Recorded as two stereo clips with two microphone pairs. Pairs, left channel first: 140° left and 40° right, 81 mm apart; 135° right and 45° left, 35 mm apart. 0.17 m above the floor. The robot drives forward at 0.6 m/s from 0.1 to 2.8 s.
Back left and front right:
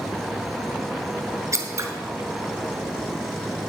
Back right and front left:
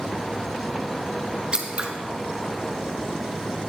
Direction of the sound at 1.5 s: 15° right.